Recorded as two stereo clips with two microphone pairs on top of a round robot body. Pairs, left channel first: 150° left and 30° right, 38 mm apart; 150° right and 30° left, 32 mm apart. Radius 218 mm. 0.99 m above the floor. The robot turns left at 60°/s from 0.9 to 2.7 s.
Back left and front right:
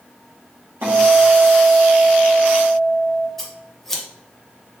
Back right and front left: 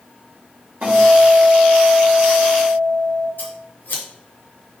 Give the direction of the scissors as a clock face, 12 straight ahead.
4 o'clock.